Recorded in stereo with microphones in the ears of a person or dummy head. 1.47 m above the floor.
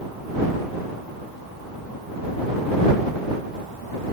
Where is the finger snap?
I don't hear a finger snap.